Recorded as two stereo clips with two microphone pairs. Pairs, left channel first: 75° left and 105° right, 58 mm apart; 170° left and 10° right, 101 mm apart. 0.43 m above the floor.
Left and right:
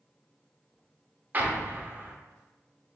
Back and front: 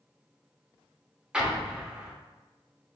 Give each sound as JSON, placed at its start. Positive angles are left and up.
{"t": 1.3, "sound": "an explosion", "azimuth_deg": -90, "distance_m": 0.6}